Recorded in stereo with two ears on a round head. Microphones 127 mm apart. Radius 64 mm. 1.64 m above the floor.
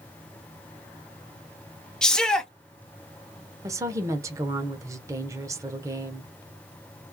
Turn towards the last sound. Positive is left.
turn(degrees=-25)  # may be behind; listen again after turning